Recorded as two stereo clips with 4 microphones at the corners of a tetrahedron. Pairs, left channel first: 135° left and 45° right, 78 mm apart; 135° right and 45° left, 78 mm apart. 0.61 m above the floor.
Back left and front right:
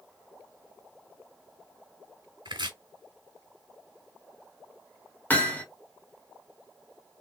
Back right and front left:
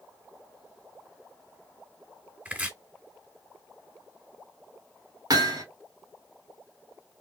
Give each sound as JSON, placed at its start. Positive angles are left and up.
{"t": 2.5, "sound": "chopping", "azimuth_deg": -25, "distance_m": 1.5}
{"t": 5.3, "sound": "hammering", "azimuth_deg": 70, "distance_m": 1.6}